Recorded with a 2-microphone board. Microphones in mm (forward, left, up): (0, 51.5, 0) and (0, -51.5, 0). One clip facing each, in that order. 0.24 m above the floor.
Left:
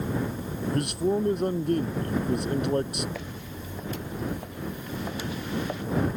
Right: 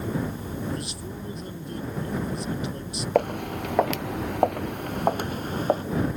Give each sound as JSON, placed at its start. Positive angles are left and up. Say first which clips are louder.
{"t": 0.7, "sound": "a man speaking", "louder": "left 9 dB", "side_deg": 60}
{"t": 3.1, "sound": "footsteps", "louder": "right 14 dB", "side_deg": -55}